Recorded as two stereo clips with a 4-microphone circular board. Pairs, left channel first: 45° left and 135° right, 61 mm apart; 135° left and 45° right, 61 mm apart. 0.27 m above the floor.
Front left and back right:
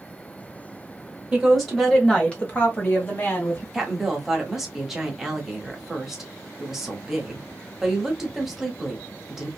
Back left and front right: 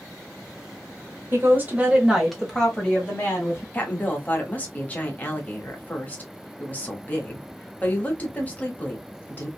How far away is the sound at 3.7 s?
About 1.1 m.